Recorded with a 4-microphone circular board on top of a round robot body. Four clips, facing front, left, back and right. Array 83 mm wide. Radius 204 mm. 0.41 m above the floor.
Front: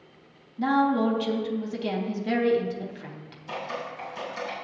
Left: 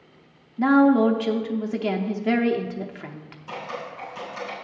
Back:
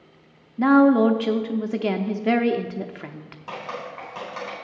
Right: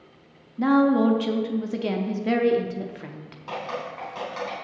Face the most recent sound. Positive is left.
turn(degrees=-150)